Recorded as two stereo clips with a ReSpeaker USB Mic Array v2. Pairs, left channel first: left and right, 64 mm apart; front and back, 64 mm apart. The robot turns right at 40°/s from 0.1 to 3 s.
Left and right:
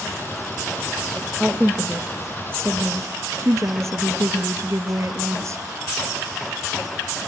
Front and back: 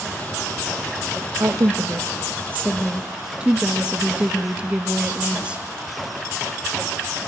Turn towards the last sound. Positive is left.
turn(degrees=-110)